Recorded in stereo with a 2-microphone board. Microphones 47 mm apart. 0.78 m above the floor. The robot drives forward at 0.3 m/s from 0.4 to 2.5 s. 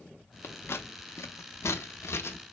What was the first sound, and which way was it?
Scissors, 50° left (ahead or behind).